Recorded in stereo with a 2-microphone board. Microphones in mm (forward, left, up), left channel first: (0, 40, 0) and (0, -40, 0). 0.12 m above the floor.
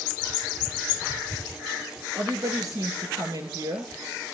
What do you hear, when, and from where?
2.2 s a woman speaking: 45° right (ahead or behind), 2.5 m